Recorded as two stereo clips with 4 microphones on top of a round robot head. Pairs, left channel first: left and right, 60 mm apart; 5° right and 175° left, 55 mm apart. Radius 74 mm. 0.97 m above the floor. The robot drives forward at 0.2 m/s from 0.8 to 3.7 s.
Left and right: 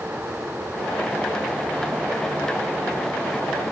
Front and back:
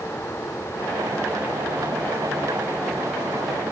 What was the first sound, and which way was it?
Only background noise.